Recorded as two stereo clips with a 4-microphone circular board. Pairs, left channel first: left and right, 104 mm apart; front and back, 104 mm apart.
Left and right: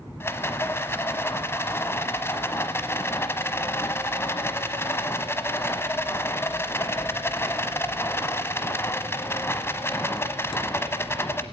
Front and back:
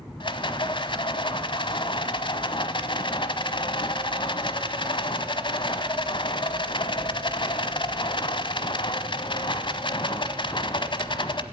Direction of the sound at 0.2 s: 25° left.